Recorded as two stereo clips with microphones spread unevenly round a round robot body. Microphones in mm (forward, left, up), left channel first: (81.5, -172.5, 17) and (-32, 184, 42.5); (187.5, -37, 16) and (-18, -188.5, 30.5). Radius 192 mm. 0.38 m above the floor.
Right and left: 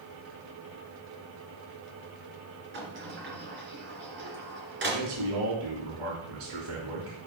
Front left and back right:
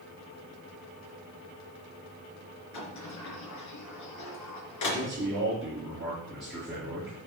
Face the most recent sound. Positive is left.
turn(degrees=135)